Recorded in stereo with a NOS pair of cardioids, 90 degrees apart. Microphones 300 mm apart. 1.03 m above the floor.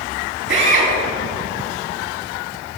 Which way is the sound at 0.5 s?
40° right.